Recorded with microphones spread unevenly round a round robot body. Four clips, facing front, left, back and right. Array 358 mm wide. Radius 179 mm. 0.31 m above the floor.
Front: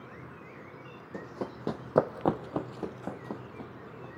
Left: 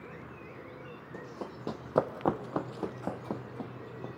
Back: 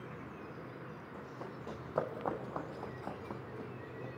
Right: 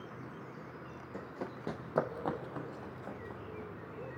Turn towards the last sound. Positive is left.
turn(degrees=95)